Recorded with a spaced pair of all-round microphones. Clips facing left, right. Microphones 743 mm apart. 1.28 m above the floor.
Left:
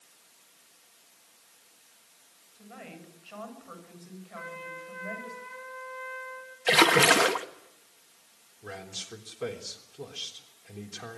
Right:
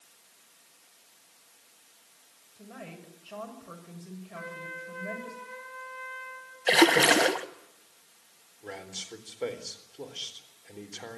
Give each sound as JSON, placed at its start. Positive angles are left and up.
{"t": 2.5, "sound": "a woman speaking", "side_deg": -65, "distance_m": 6.5}
{"t": 4.3, "sound": "a trumpet", "side_deg": -60, "distance_m": 6.5}
{"t": 6.7, "sound": "a splash", "side_deg": 40, "distance_m": 1.2}
{"t": 8.6, "sound": "a man speaking", "side_deg": 40, "distance_m": 3.5}